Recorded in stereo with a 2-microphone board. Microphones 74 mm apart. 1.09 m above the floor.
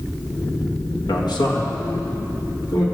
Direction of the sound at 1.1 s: 80° left.